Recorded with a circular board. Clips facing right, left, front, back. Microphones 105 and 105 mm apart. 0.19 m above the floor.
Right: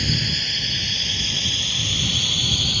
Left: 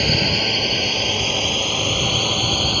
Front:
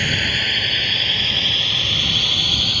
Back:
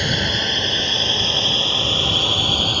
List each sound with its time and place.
0.0 s a drone: 110° left; by 2.8 s 125° left